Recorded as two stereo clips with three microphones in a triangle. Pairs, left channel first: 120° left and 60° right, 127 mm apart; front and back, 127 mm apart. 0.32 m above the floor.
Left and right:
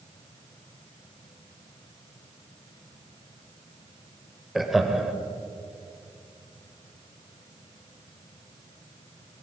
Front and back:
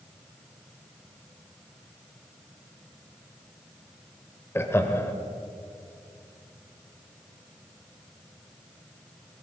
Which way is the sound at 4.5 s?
25° left.